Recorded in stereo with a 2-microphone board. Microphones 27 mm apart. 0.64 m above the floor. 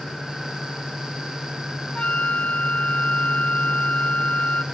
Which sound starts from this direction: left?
A flute, at 1.9 s.